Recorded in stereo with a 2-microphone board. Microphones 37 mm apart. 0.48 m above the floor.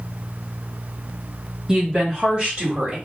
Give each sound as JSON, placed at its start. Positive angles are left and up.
{"t": 1.7, "sound": "a woman speaking", "side_deg": -20, "distance_m": 1.9}